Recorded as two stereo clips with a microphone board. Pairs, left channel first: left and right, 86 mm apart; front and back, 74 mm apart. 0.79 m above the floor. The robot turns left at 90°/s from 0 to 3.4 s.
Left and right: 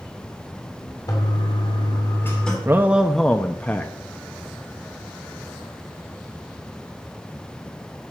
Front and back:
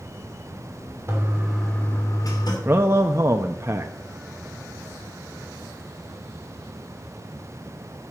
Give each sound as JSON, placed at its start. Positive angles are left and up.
{"t": 1.1, "sound": "a toilet flushing", "azimuth_deg": 135, "distance_m": 2.5}
{"t": 2.6, "sound": "a man speaking", "azimuth_deg": -135, "distance_m": 0.7}